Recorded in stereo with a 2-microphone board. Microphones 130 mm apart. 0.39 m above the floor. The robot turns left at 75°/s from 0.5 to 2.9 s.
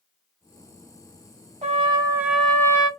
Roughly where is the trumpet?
Behind right.